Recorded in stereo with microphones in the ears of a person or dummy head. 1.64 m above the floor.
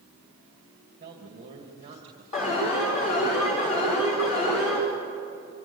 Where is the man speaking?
45° right (ahead or behind), 3 m.